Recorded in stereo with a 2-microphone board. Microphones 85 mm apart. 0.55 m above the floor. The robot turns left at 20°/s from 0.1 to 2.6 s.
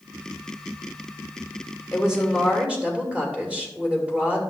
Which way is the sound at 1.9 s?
5° right (ahead or behind).